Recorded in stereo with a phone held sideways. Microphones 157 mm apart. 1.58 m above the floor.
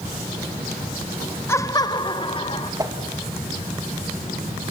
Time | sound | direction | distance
1.5 | laughter | 15° left (ahead or behind) | 0.7 m
2.8 | a whoosh | 25° right (ahead or behind) | 2 m